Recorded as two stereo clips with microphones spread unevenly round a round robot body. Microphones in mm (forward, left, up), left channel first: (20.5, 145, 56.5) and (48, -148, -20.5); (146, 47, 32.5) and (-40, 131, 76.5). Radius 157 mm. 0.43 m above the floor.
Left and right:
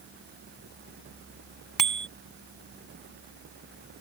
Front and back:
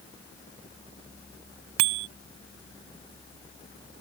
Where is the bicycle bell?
170° right.